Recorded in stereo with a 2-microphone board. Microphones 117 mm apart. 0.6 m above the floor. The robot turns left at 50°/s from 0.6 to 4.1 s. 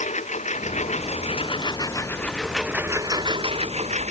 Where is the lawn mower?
95° left; by 4.1 s 80° right.